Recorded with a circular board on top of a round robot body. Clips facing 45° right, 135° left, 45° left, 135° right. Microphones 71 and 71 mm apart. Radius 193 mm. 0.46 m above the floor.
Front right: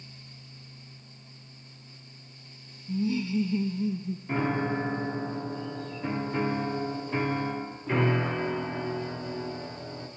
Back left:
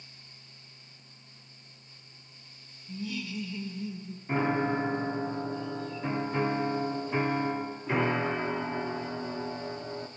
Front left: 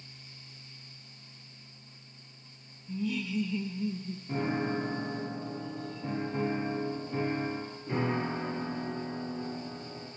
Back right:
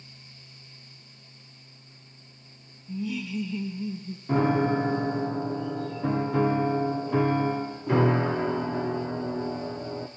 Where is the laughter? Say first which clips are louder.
Front right 9 dB, back right 1 dB; 50° right, 0.7 m.